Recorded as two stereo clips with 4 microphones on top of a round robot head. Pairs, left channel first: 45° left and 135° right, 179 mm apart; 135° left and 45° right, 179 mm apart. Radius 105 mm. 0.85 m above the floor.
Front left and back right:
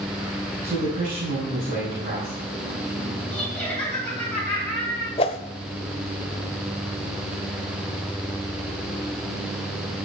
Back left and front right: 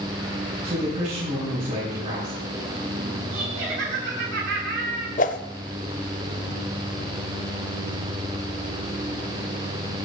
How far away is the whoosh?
About 0.7 m.